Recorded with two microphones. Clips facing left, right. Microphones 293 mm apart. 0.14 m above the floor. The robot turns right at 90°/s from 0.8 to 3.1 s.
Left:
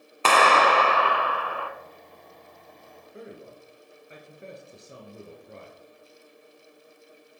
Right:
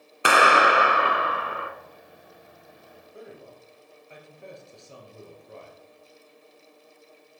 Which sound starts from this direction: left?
A man speaking, at 3.1 s.